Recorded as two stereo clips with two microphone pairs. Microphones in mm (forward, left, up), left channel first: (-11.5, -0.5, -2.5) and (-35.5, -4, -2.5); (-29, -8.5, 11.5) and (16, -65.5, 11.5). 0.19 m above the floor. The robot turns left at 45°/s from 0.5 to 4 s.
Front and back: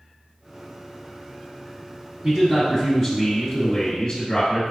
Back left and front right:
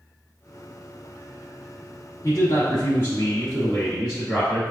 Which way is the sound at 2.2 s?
135° left.